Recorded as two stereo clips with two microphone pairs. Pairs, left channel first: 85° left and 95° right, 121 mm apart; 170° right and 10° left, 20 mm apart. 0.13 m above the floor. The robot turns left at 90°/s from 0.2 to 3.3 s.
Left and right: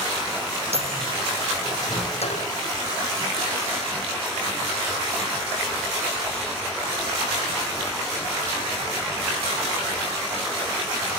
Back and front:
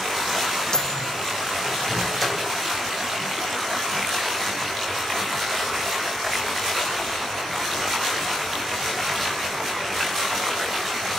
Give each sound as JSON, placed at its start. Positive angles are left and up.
{"t": 0.7, "sound": "a microwave", "azimuth_deg": -120, "distance_m": 6.0}